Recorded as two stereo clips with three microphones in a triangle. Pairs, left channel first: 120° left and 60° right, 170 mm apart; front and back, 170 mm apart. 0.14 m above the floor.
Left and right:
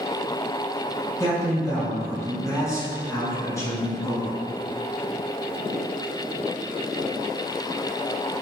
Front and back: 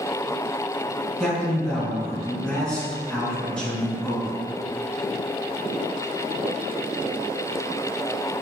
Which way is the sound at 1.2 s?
80° left.